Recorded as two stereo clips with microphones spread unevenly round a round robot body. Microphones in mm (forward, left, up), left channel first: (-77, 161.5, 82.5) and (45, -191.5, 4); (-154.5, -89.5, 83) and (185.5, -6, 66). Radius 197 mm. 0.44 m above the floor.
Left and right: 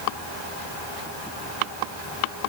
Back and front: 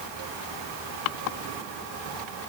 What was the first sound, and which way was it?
Only background noise.